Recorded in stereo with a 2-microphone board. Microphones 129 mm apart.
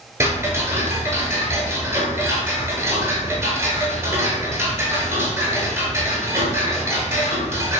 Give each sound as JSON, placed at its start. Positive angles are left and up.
{"t": 0.2, "sound": "ticking", "side_deg": -20, "distance_m": 0.6}